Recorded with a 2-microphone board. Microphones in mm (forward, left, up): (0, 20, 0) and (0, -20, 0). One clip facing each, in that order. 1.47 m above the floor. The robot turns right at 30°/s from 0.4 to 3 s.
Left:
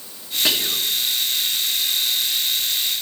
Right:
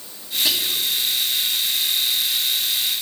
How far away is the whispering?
About 2.5 m.